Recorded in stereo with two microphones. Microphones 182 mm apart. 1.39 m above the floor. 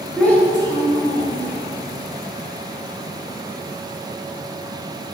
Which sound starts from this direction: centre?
A child speaking, at 0.2 s.